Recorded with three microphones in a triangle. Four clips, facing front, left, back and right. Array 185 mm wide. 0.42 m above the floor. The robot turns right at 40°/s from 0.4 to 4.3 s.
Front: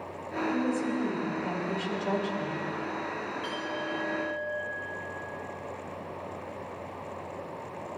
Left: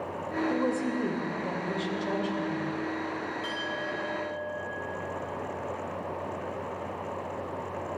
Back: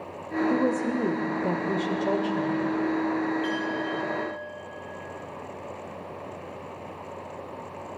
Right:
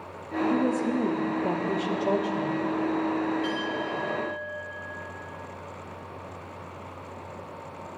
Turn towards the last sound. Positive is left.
turn(degrees=-105)